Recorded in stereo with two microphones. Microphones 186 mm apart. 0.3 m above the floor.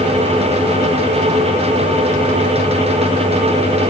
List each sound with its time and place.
Only background noise.